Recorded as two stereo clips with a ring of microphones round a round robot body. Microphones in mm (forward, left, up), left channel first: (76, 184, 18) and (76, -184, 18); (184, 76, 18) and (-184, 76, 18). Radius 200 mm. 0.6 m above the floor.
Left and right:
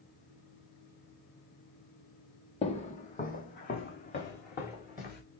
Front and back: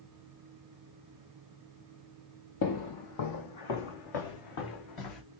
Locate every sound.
2.6 s footsteps: 20° left, 0.8 m; by 5.2 s 25° left, 2.5 m